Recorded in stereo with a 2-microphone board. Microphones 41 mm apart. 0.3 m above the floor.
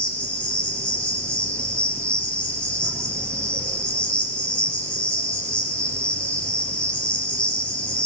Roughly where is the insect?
Left.